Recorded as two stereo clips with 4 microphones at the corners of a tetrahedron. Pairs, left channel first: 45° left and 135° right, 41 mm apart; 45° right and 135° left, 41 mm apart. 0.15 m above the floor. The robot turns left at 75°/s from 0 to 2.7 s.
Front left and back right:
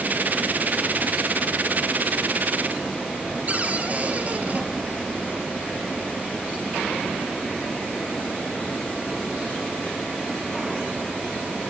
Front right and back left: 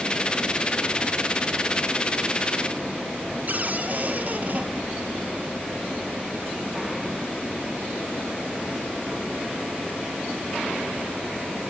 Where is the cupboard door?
Straight behind, 2.5 m.